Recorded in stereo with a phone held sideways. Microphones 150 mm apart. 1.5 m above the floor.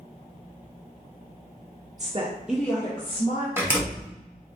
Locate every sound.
2.0 s a woman speaking: 50° right (ahead or behind), 0.6 m; by 3.5 s 45° left (ahead or behind), 1.1 m
3.6 s a door slam: 15° right (ahead or behind), 1.1 m